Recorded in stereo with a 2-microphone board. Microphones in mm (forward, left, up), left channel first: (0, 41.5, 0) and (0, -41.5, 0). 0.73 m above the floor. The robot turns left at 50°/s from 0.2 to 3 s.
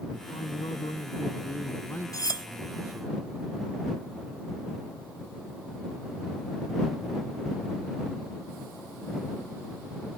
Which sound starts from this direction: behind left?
A man speaking, at 0.1 s.